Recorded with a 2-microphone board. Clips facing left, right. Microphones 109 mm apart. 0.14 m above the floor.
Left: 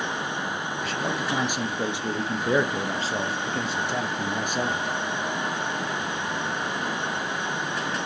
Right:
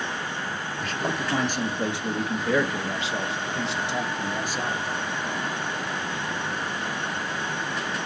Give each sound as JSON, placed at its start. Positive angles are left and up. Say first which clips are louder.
{"t": 0.8, "sound": "a man speaking", "louder": "right 1 dB", "side_deg": 0, "distance_m": 2.5}